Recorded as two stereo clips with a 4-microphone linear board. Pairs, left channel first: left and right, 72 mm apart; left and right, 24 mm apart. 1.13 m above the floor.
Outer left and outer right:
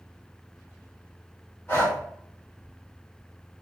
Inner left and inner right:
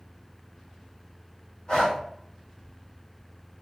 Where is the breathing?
30° left (ahead or behind), 1.3 m.